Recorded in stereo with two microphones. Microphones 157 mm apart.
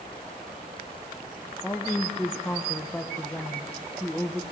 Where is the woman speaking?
5° left (ahead or behind), 1.1 m.